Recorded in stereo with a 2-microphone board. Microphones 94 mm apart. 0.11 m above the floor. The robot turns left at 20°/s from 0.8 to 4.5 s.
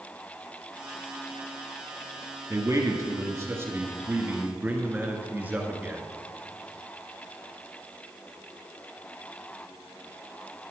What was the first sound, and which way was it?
A man speaking, 110° right.